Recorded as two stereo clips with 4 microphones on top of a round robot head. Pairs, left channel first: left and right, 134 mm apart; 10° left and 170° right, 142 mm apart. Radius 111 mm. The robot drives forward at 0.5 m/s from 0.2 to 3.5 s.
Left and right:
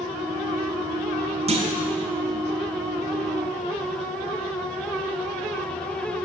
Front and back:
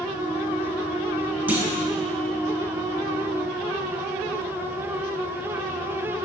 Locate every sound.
1.5 s a clunk: 95° right, 1.1 m; by 1.9 s 110° right, 1.2 m